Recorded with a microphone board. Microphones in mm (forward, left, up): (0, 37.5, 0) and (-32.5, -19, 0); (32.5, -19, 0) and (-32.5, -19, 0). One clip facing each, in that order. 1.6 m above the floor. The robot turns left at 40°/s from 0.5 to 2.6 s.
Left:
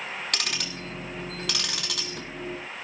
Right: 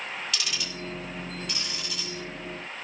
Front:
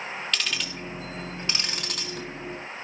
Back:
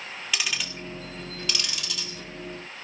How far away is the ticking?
About 3.5 m.